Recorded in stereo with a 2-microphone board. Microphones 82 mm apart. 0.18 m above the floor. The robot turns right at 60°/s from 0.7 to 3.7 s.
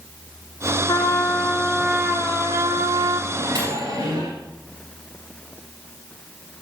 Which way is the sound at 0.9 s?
105° left.